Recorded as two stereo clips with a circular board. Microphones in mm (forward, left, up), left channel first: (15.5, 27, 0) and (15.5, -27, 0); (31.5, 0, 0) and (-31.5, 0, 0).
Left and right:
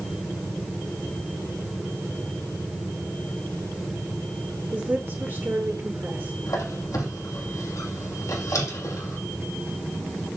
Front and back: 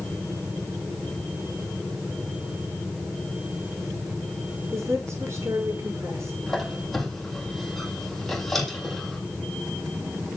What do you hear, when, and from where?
4.7 s a woman speaking: 145° right, 5 m
6.5 s a squeak: 90° left, 2 m